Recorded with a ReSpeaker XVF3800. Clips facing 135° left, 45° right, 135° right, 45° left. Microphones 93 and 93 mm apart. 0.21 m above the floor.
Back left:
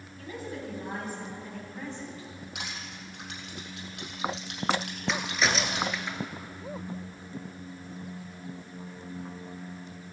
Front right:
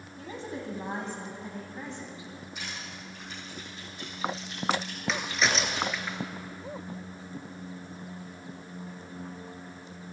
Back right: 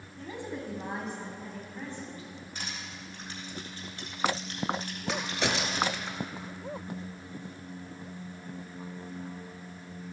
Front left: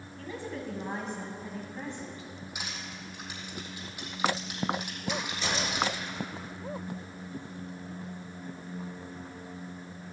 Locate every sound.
0.2 s a woman speaking: 85° right, 1.9 m; by 2.5 s 15° left, 1.9 m
2.5 s crushing: 125° left, 3.5 m
5.1 s a crack: 135° right, 1.1 m